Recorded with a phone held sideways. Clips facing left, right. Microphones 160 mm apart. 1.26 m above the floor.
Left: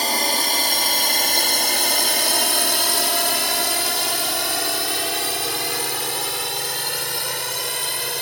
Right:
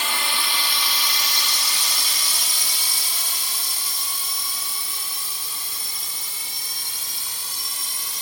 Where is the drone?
40° left (ahead or behind); by 8.2 s 65° left (ahead or behind).